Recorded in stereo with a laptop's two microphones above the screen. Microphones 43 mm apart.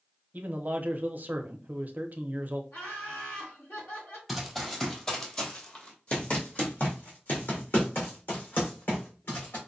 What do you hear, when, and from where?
0.3 s a man speaking: 45° right (ahead or behind), 0.7 m
2.7 s laughter: 80° left, 2.5 m
4.3 s running footsteps: centre (ahead or behind), 1.3 m; by 9.6 s 60° left (ahead or behind), 3 m